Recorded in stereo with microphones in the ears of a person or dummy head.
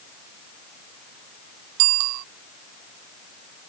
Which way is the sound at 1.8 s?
75° right (ahead or behind).